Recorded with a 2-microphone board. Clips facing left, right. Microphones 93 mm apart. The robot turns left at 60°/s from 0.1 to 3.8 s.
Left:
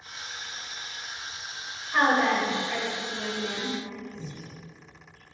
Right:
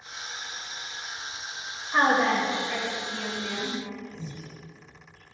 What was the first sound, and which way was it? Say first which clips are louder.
A woman speaking: even; 15° right (ahead or behind).